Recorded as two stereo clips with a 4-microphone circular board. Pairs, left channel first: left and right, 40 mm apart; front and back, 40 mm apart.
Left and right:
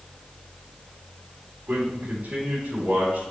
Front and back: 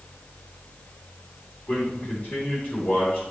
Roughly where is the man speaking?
Ahead right.